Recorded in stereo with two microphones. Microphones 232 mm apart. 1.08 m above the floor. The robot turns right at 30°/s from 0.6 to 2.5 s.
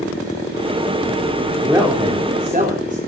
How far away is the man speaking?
About 3.5 m.